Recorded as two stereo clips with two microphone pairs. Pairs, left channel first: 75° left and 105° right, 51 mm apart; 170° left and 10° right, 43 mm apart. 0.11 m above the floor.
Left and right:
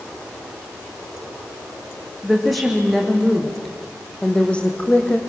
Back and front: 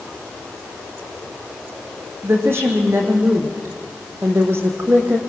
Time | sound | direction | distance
2.2 | a woman speaking | 20° right | 5 m